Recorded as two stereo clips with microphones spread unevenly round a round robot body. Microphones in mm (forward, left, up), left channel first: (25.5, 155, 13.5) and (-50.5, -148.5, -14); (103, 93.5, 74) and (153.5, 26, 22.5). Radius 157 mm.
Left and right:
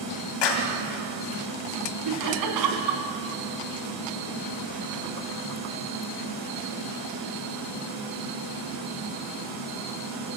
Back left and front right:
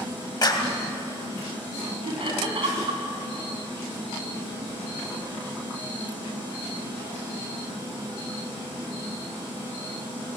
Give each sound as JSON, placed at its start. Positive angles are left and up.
{"t": 0.4, "sound": "a clap", "azimuth_deg": 80, "distance_m": 3.0}
{"t": 2.0, "sound": "laughter", "azimuth_deg": -75, "distance_m": 4.0}